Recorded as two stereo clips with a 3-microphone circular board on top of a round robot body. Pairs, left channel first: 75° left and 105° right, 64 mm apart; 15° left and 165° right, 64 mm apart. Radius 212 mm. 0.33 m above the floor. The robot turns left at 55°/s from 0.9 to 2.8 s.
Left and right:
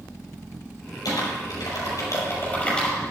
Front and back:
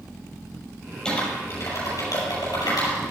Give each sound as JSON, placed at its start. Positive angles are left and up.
{"t": 1.1, "sound": "typing on a keyboard", "azimuth_deg": 95, "distance_m": 6.5}